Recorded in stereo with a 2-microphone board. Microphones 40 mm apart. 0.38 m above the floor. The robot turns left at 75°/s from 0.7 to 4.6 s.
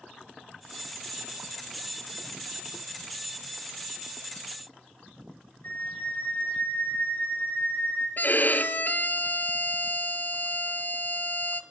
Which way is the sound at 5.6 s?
45° left (ahead or behind).